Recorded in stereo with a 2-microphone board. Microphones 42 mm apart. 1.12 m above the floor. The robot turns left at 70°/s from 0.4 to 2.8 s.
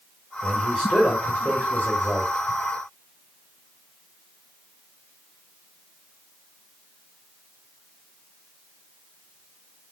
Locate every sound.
0.4 s a man speaking: straight behind, 1.3 m; by 2.3 s 50° left, 1.3 m